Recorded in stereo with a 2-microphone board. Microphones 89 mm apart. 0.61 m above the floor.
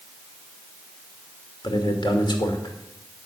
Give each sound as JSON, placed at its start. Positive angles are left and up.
{"t": 1.6, "sound": "a man speaking", "side_deg": 55, "distance_m": 2.5}